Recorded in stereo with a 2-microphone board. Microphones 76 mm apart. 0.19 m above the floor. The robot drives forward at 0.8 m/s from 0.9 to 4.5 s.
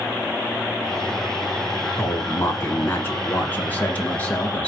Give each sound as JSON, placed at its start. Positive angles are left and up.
{"t": 2.0, "sound": "a man speaking", "side_deg": 35, "distance_m": 1.5}